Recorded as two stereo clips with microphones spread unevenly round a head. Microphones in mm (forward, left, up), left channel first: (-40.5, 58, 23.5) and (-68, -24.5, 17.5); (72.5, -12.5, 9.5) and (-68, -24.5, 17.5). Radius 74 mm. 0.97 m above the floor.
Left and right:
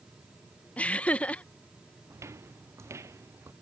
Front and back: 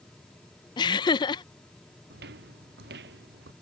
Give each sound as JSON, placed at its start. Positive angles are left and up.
{"t": 0.8, "sound": "laughter", "azimuth_deg": 0}
{"t": 2.1, "sound": "footsteps", "azimuth_deg": -165}